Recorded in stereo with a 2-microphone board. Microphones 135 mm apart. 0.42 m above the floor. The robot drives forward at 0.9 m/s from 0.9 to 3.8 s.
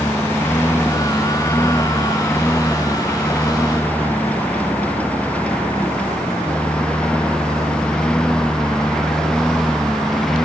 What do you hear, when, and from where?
0.0 s a lawn mower: 15° left (ahead or behind); by 10.5 s 5° left (ahead or behind)